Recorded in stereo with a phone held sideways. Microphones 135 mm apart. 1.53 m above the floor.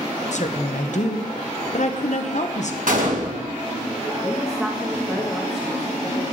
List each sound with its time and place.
0.3 s a woman speaking: 60° left (ahead or behind), 1.0 m
2.9 s a gunshot: 80° right, 1.8 m
4.2 s a woman speaking: 5° right (ahead or behind), 2 m